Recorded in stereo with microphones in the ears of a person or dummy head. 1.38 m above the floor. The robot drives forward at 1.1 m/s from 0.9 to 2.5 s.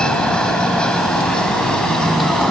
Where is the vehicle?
5° left (ahead or behind).